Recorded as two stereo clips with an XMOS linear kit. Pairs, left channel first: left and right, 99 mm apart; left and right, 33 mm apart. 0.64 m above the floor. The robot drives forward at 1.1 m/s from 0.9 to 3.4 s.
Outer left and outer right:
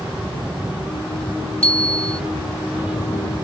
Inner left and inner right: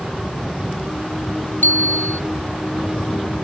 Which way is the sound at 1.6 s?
80° left.